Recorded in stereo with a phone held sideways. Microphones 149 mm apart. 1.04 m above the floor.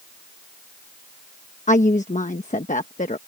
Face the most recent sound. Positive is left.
turn(degrees=55)  # may be behind; listen again after turning